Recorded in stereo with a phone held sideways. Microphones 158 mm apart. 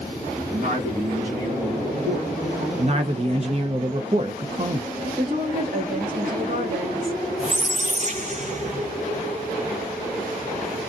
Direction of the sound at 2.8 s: 40° right (ahead or behind).